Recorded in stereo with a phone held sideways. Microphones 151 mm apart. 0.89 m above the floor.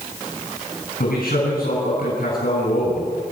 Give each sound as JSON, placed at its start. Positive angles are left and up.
{"t": 1.0, "sound": "a man speaking", "side_deg": 70, "distance_m": 7.5}